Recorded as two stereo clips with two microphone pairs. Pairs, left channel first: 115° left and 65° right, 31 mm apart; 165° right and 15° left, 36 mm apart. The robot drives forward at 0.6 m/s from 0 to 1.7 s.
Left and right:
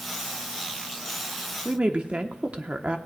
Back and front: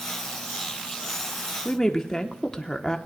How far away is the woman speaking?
About 1.0 m.